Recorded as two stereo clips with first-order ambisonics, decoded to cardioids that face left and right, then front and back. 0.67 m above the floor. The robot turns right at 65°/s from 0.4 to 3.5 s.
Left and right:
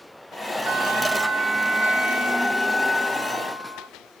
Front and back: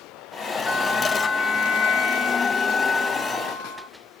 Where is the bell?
105° right, 3 m; by 3.9 s 80° left, 3 m.